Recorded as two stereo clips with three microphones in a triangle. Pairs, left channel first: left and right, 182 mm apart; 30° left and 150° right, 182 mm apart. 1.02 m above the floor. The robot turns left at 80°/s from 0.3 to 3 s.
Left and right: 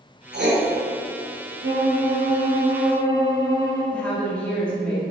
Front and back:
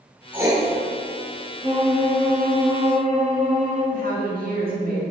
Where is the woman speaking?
175° left, 1.9 m.